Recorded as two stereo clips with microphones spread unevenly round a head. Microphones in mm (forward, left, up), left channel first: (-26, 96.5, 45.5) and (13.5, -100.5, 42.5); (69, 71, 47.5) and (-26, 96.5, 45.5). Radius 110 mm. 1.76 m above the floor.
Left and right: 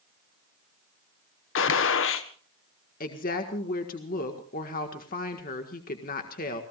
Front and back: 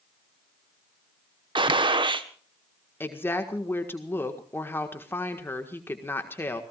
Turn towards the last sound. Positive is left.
turn(degrees=50)